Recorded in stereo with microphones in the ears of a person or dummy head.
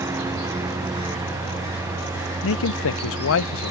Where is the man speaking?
60° left (ahead or behind).